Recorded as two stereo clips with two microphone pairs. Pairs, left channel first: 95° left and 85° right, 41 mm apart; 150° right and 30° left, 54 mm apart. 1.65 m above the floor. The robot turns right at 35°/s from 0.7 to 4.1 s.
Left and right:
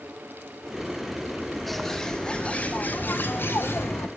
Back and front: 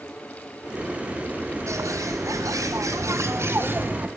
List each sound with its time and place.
1.7 s a bird: 5° left, 1.3 m; by 4.1 s 90° left, 1.3 m